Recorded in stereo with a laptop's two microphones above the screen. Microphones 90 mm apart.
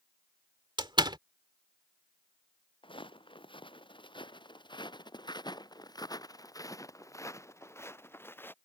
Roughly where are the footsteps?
Left.